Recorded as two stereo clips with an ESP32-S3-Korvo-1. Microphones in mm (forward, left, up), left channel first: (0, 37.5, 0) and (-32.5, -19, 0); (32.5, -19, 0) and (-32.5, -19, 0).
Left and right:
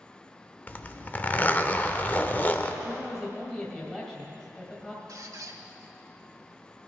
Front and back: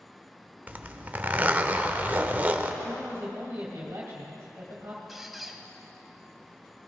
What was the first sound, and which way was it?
A zipper, 120° left.